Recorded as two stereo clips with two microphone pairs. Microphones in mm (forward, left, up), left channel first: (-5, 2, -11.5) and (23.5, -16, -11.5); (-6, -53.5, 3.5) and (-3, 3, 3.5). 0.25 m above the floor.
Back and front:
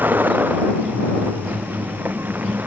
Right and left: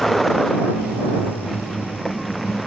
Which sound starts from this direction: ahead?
A vehicle, at 0.0 s.